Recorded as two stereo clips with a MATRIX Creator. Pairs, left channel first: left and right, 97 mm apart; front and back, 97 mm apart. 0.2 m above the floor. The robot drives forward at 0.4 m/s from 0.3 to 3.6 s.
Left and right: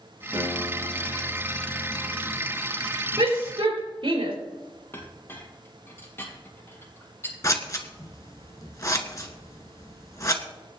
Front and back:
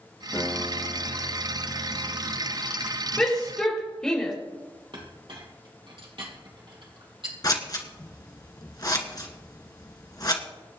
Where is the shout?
80° right, 4.5 m.